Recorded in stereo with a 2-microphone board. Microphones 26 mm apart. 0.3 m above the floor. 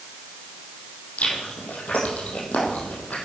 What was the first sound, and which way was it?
Chewing, 65° left (ahead or behind).